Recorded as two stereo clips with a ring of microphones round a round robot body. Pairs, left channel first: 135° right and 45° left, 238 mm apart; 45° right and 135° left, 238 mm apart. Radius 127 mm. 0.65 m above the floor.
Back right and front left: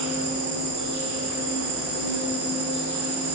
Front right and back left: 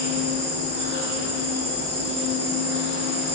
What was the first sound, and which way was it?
An insect, straight ahead.